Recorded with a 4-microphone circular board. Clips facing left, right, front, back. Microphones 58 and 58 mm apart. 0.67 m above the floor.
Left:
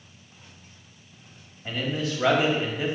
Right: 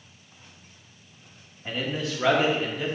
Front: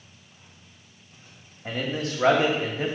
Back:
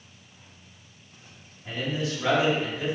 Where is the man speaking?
5° right, 1.7 m; by 3.0 s 30° left, 1.3 m.